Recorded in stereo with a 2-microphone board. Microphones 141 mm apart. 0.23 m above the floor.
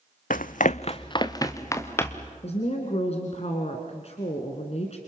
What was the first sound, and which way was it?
Running footsteps, 70° left (ahead or behind).